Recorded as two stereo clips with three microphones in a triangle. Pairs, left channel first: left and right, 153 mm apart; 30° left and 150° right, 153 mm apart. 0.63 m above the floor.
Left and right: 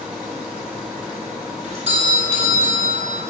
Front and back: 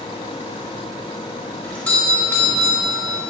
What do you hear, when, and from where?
1.6 s a doorbell: 45° right, 4 m